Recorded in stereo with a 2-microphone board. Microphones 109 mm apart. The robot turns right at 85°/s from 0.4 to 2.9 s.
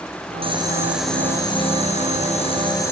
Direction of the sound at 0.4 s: 50° right.